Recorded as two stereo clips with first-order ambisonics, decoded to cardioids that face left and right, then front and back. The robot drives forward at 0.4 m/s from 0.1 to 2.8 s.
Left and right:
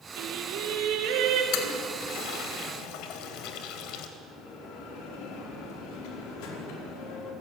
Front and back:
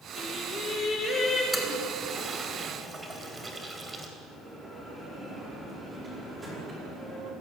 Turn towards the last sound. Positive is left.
turn(degrees=100)